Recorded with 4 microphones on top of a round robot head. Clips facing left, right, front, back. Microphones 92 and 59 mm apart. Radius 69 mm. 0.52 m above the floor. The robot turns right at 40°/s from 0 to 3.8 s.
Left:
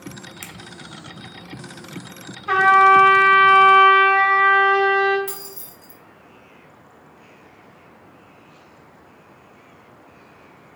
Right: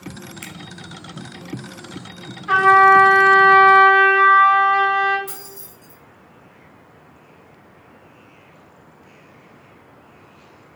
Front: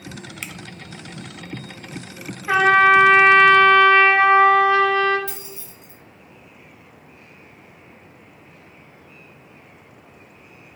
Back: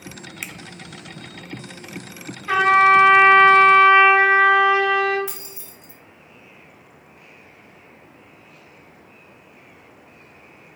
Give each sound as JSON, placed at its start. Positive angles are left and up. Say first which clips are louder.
{"t": 0.4, "sound": "a finger snap", "louder": "right 3 dB, back 1 dB", "azimuth_deg": 105, "distance_m": 0.6}
{"t": 2.5, "sound": "a trumpet", "louder": "right 1 dB, even", "azimuth_deg": 60, "distance_m": 1.9}
{"t": 5.3, "sound": "keys jangling", "louder": "left 2 dB, front 2 dB", "azimuth_deg": 110, "distance_m": 1.5}